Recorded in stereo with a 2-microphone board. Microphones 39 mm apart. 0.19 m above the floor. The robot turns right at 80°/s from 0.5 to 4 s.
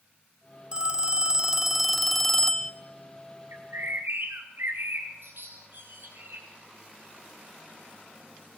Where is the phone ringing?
25° right (ahead or behind), 1.0 m; by 2.7 s 20° left (ahead or behind), 1.0 m.